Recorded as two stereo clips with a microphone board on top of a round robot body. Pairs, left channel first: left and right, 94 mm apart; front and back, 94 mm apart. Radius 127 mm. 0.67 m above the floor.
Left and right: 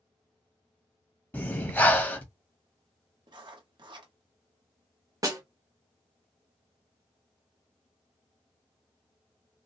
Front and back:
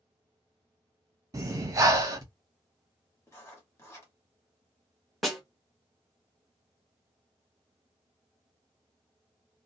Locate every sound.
1.3 s breathing: 155° left, 1.0 m
3.3 s writing: 60° right, 1.3 m
5.2 s a snare drum: 90° right, 1.3 m